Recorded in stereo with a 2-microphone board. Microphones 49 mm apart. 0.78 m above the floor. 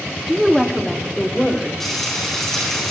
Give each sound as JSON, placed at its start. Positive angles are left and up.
{"t": 0.3, "sound": "a woman speaking", "side_deg": -5, "distance_m": 1.5}
{"t": 1.8, "sound": "frying", "side_deg": 5, "distance_m": 5.0}